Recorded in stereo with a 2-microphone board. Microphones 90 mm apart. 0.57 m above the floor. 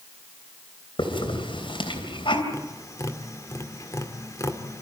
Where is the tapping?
35° left (ahead or behind), 1.9 m.